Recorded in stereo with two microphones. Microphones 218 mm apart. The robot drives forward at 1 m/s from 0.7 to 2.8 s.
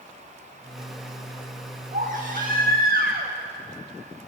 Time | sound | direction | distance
1.9 | a baby crying | 40° right (ahead or behind) | 6 m